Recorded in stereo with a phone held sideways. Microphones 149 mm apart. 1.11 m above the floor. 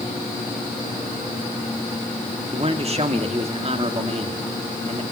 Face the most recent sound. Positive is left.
turn(degrees=-40)  # may be behind; listen again after turning